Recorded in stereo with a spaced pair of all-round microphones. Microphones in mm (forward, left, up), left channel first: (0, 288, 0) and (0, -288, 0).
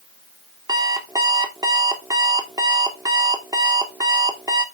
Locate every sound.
0.7 s an alarm clock: 5° right (ahead or behind), 1.3 m